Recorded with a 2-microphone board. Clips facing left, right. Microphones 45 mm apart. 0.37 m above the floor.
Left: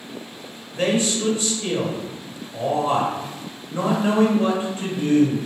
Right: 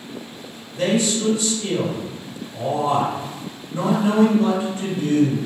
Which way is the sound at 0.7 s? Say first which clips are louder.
Right 1 dB; 35° left (ahead or behind).